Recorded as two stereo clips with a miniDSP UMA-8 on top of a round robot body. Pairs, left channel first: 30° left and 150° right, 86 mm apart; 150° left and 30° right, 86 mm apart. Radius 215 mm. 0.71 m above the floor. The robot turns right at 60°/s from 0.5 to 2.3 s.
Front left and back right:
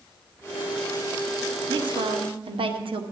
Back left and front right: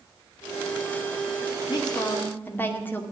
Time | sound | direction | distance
1.7 | a woman speaking | 175° right | 2.5 m